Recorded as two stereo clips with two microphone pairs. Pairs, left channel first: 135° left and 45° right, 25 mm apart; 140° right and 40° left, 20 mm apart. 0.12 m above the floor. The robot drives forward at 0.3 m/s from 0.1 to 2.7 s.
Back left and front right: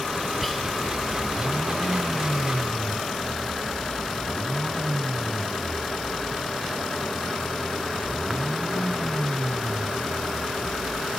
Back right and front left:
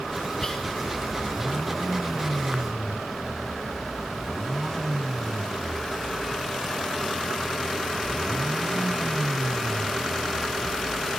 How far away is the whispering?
About 1.6 m.